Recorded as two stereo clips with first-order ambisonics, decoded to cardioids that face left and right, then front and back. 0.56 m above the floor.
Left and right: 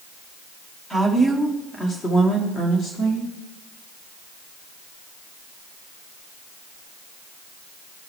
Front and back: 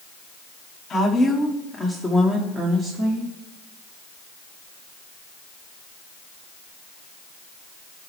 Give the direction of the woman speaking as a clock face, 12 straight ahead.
12 o'clock.